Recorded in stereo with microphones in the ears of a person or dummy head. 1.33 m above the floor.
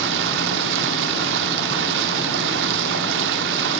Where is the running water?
65° right (ahead or behind), 1.5 m.